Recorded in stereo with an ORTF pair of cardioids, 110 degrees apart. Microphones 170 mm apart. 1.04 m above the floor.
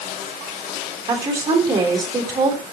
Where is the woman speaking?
20° right, 3 m.